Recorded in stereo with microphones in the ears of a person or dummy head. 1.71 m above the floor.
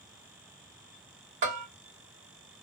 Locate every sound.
1.4 s a bell: 40° right (ahead or behind), 1.8 m